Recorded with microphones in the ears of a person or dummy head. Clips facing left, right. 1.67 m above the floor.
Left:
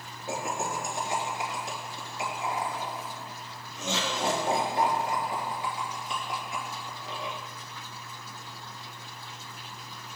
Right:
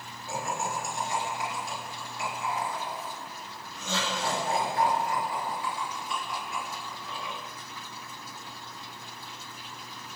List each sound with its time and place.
0.3 s laughter: 20° left (ahead or behind), 3.5 m